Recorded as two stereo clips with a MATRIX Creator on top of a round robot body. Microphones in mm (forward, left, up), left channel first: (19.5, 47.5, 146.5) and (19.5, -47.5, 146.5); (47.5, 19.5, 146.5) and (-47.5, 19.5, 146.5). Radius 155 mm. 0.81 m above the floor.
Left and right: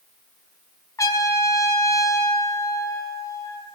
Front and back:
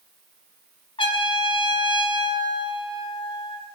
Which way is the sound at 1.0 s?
30° left.